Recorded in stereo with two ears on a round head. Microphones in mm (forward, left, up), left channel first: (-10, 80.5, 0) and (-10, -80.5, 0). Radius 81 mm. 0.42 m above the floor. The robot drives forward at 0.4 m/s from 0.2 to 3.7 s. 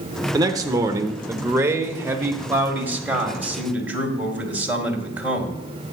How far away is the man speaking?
About 0.8 m.